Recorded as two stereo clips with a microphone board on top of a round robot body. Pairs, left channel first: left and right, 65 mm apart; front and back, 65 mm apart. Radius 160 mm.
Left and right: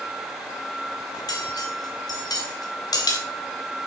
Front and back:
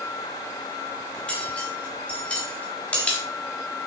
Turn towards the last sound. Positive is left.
turn(degrees=75)